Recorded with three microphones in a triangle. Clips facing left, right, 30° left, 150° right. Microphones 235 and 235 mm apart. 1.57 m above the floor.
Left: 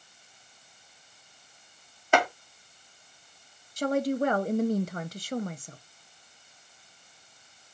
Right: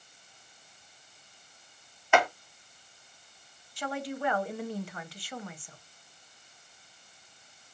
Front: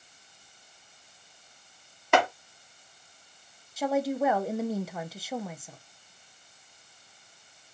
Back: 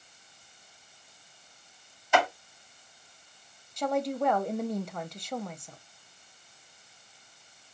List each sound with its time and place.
2.1 s chopping: 45° left, 1.8 m
3.8 s a woman speaking: 115° left, 0.6 m